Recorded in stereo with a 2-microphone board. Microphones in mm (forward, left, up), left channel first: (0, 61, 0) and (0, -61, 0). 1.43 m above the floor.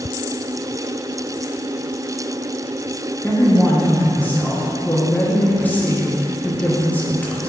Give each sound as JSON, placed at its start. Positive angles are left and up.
{"t": 3.2, "sound": "a man speaking", "side_deg": 15, "distance_m": 0.9}